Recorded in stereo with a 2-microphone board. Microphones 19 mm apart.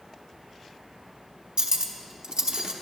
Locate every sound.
1.6 s cutlery clinking: 55° right (ahead or behind), 0.9 m